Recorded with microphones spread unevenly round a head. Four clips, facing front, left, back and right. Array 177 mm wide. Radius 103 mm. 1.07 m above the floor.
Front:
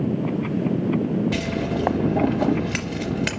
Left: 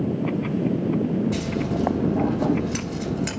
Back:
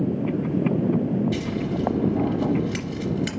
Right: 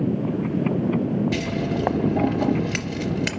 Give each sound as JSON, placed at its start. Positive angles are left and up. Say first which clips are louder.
{"t": 1.3, "sound": "scissors", "louder": "even, front 2 dB", "azimuth_deg": -15, "distance_m": 2.5}